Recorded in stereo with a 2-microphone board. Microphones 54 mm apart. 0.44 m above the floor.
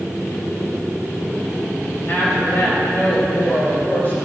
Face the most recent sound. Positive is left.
turn(degrees=45)  # may be behind; listen again after turning